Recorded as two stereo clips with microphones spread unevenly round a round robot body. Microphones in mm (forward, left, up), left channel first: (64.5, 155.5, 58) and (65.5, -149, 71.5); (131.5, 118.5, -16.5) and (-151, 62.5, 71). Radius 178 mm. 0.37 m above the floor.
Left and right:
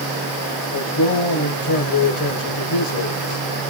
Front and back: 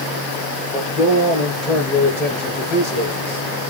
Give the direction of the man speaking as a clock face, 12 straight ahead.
9 o'clock.